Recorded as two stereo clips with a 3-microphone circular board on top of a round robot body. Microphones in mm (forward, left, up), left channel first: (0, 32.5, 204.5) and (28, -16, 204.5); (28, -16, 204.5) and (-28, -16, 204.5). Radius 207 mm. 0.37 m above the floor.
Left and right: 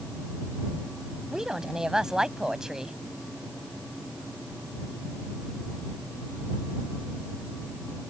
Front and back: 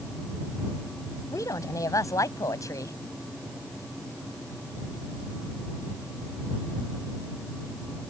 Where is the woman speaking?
20° left.